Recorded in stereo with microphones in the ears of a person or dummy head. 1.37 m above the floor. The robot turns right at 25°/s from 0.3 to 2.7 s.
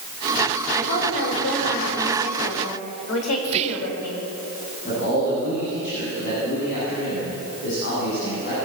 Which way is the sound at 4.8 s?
60° left (ahead or behind).